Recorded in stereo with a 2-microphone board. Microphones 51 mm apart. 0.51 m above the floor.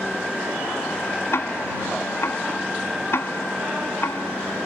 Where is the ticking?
65° left (ahead or behind).